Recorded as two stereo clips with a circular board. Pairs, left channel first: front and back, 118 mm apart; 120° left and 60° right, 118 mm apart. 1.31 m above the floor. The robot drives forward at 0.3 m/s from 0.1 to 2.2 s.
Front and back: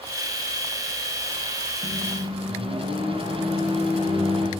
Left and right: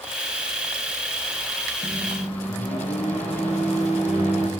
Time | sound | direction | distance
1.8 | a microwave | 140° left | 9 m